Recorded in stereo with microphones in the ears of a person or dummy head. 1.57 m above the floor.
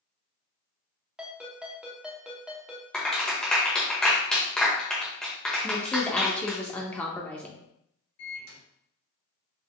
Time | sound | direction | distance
1.2 | a ringtone | 5° right (ahead or behind) | 0.7 m
2.9 | a clap | 5° left (ahead or behind) | 1.0 m
5.6 | a woman speaking | 10° left (ahead or behind) | 0.6 m
8.2 | a microwave | 65° left (ahead or behind) | 1.4 m